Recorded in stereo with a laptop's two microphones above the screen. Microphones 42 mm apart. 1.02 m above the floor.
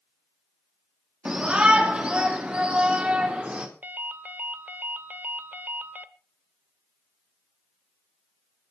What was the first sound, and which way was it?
A shout, 25° right (ahead or behind).